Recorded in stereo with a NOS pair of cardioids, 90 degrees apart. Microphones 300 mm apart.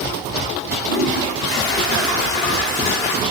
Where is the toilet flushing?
45° left, 3 m.